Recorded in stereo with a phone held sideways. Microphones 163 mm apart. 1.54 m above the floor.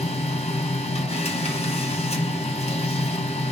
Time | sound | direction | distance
0.0 | a machine running | 40° left (ahead or behind) | 0.7 m